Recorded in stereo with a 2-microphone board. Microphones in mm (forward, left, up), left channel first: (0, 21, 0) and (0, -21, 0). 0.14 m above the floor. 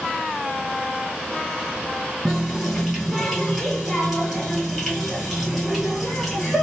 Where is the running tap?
5° left (ahead or behind), 2 m.